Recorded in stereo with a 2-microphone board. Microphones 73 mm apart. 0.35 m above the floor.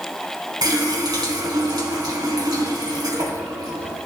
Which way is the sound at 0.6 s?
70° right (ahead or behind).